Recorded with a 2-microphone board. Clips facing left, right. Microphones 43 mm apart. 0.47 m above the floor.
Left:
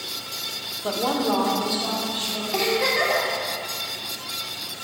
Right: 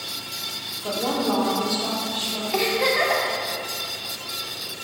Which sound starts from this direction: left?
A woman speaking, at 0.8 s.